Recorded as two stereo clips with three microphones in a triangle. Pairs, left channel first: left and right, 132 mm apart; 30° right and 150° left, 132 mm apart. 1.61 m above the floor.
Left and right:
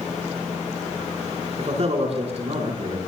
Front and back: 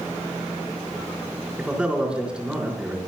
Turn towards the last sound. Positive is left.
turn(degrees=-130)